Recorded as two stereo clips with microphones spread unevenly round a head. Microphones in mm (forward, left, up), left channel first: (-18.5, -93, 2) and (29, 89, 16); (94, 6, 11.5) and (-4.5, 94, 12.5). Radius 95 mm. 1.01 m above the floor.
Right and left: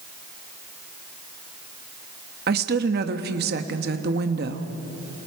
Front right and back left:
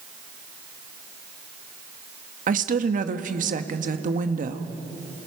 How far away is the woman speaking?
About 1.2 m.